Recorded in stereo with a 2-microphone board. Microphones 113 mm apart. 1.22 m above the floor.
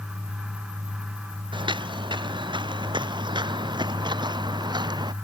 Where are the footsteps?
45° right (ahead or behind); by 5.1 s 40° right (ahead or behind).